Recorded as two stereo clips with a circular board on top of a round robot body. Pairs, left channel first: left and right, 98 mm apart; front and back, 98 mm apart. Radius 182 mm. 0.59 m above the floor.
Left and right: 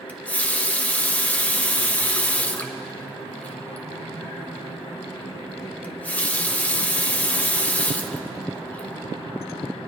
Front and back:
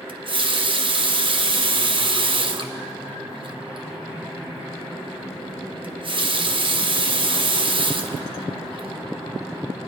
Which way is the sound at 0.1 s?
165° left.